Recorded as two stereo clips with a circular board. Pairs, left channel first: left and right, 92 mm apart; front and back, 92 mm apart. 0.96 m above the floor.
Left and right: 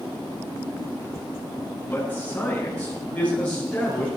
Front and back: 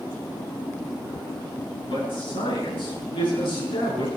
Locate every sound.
1.8 s a man speaking: 15° left, 10 m; by 4.1 s 10° left, 10 m